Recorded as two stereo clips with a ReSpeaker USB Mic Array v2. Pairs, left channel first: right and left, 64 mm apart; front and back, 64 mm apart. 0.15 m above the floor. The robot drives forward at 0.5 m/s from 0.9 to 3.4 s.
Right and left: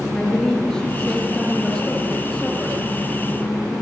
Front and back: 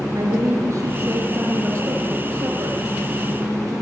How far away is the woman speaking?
About 3 m.